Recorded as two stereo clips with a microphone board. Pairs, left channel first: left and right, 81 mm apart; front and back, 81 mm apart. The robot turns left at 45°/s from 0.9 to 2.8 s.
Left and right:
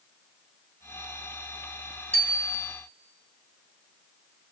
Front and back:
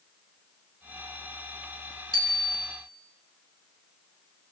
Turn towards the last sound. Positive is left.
turn(degrees=130)